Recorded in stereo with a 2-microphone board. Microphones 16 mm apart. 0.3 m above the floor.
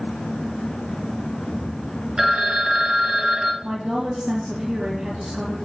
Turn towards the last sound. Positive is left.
turn(degrees=-55)  # may be behind; listen again after turning